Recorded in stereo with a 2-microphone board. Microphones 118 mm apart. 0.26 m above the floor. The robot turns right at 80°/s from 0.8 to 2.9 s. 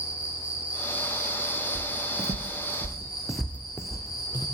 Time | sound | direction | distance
0.0 | an insect | 170° right | 8.5 m
1.8 | footsteps | 15° right (ahead or behind) | 1.6 m